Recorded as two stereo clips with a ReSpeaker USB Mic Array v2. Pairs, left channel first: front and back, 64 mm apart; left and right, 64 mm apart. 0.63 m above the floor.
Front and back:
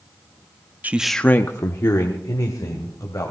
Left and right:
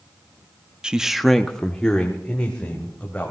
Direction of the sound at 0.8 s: 155° right.